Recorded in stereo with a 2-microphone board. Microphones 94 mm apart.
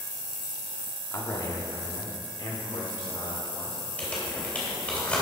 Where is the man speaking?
30° left (ahead or behind), 1.5 m; by 3.8 s 65° left (ahead or behind), 3 m.